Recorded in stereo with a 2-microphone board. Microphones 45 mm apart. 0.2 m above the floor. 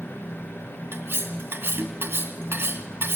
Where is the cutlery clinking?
60° right (ahead or behind), 1.4 m.